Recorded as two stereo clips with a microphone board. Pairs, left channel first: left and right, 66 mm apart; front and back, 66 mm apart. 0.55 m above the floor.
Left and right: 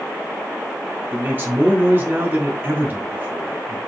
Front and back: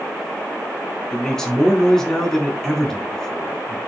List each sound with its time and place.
1.1 s a man speaking: 75° right, 1.1 m